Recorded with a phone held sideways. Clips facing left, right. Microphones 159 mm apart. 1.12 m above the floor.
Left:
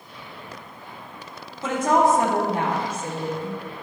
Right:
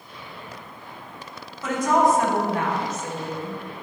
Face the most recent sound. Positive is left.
turn(degrees=35)  # may be behind; listen again after turning